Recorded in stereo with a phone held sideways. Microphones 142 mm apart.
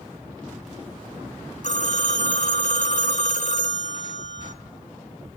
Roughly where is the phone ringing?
Left.